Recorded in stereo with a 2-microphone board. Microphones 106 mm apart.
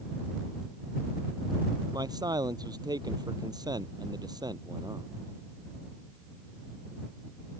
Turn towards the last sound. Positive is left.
turn(degrees=-35)  # may be behind; listen again after turning